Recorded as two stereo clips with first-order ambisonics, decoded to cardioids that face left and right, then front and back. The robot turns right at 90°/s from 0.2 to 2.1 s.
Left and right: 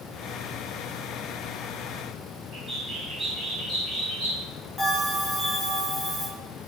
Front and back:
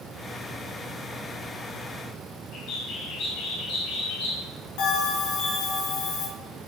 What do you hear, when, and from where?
2.5 s a bird: 25° right, 2.0 m
4.8 s a bell: 5° right, 1.4 m